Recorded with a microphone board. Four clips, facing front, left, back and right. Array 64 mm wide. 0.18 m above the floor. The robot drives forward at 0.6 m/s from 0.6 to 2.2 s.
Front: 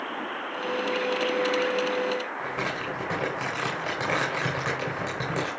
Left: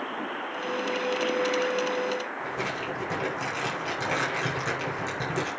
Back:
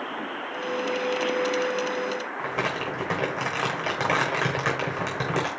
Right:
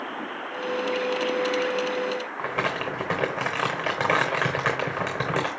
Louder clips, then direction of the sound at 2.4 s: Right 4 dB, back 2 dB; 105° right.